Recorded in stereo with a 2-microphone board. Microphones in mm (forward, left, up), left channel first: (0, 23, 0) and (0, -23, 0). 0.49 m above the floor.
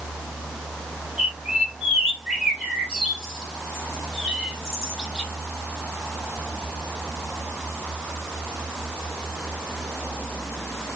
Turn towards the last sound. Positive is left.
turn(degrees=-10)  # may be behind; listen again after turning